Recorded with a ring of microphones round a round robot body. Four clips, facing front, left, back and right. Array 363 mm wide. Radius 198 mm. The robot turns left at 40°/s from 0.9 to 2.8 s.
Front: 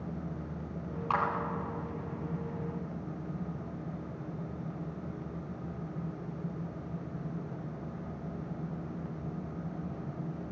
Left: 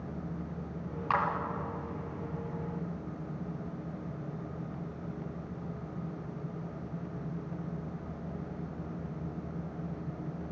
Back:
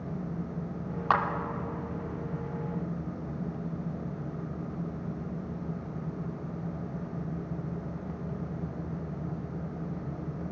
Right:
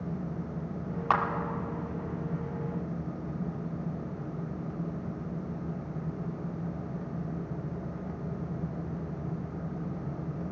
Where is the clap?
140° right, 2 m; by 1.2 s 145° right, 2 m.